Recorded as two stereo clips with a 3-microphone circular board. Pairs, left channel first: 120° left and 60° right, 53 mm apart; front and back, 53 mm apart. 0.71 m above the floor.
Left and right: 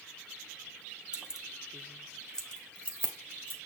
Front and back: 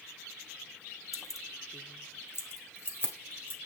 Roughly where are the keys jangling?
Ahead.